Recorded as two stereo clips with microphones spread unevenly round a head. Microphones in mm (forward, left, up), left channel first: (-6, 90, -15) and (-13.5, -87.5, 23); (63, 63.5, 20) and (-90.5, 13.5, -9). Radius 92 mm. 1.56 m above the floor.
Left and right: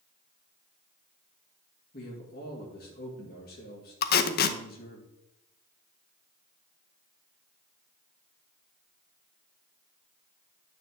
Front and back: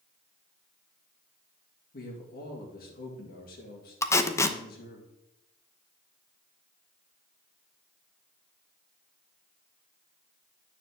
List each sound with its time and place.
1.9 s a man speaking: 45° left, 2.5 m
4.0 s tape being pulled: 70° left, 0.8 m